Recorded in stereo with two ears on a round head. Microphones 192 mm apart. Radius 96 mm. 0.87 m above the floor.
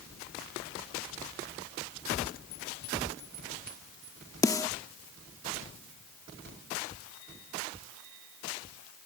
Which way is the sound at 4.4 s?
15° left (ahead or behind).